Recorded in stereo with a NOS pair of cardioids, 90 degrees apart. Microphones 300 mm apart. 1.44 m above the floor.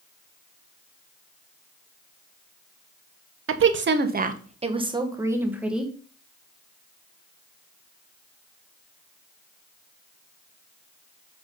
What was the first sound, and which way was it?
A woman speaking, 45° right.